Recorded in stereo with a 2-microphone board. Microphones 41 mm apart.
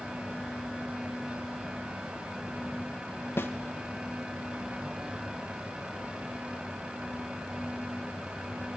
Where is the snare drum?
65° left (ahead or behind), 1.1 m.